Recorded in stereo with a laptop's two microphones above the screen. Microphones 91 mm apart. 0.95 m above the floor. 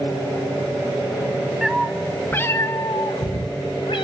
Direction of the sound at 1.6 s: 5° right (ahead or behind).